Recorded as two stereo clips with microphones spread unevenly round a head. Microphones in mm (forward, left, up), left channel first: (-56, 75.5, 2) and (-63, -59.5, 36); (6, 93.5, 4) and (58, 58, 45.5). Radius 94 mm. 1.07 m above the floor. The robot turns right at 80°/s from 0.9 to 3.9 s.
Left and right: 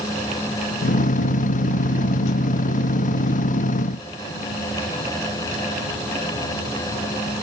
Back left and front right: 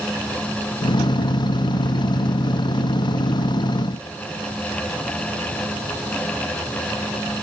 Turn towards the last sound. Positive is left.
No sound to turn to.